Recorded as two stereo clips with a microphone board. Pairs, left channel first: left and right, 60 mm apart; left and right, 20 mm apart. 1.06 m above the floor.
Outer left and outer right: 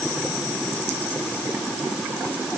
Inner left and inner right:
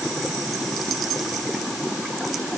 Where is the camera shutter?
I don't hear a camera shutter.